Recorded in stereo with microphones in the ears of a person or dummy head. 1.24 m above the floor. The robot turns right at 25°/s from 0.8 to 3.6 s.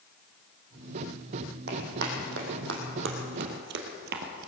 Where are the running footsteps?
60° right (ahead or behind), 4 m; by 4.5 s 55° right (ahead or behind), 1.9 m.